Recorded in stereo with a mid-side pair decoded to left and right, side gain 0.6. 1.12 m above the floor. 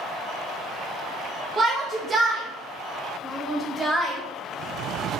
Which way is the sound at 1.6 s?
35° right.